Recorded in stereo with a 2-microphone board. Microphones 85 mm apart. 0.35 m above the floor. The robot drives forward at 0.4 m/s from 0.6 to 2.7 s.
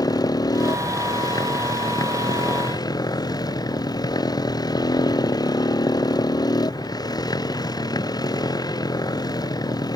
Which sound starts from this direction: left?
A motorcycle, at 0.0 s.